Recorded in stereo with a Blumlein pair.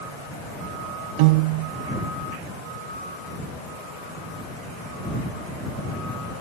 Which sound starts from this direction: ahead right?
A piano, at 1.2 s.